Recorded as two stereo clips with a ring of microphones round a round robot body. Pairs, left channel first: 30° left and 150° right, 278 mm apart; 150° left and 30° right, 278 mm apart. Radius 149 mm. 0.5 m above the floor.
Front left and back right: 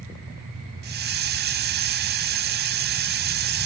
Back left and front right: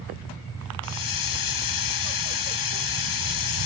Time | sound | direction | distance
0.8 | a hiss | 155° left | 2 m